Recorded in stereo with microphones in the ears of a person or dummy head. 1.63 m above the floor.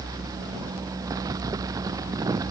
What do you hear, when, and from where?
Only background noise.